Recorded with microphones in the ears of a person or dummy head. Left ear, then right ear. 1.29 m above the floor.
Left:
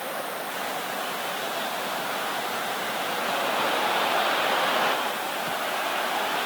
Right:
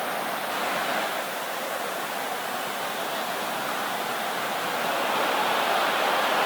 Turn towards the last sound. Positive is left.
No sound to turn to.